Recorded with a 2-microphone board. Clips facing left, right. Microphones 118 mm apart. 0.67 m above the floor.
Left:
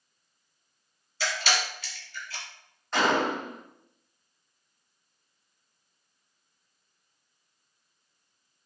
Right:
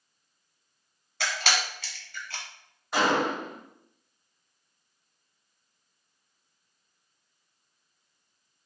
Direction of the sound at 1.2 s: 70° right (ahead or behind).